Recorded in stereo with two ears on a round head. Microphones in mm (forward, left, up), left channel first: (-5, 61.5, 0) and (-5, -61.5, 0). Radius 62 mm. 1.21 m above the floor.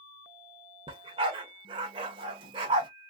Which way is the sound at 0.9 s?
35° right (ahead or behind).